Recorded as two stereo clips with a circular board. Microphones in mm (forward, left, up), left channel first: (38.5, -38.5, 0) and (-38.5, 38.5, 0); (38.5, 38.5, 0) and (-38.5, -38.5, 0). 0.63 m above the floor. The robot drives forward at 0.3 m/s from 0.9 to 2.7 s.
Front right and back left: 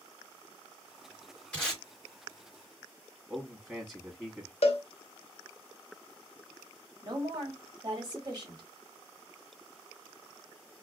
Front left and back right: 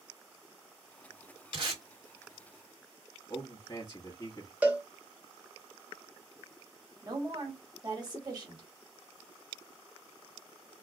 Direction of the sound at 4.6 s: 60° right.